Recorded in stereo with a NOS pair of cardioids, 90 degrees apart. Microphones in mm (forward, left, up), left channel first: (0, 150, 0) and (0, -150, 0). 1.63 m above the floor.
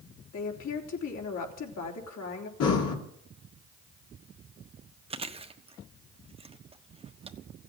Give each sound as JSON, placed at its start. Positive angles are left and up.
{"t": 0.3, "sound": "a woman speaking", "azimuth_deg": 60, "distance_m": 3.5}
{"t": 2.6, "sound": "breathing", "azimuth_deg": 65, "distance_m": 2.5}
{"t": 5.1, "sound": "chewing", "azimuth_deg": -20, "distance_m": 1.2}